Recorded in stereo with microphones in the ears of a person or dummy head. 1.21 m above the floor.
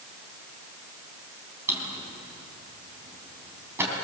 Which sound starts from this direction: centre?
A drawer, at 1.7 s.